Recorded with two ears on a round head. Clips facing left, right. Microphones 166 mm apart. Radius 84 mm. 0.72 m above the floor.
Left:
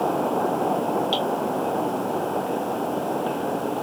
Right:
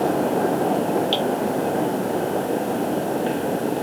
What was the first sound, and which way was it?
Dripping, 20° right (ahead or behind).